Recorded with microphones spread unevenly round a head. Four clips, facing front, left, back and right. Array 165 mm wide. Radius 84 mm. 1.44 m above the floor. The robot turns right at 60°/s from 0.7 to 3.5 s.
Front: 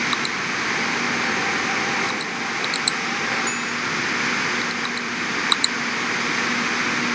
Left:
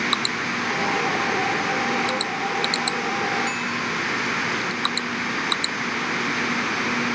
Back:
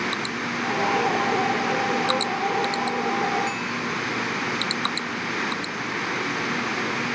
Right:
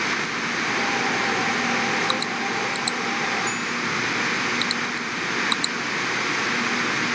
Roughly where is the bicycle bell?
Behind left.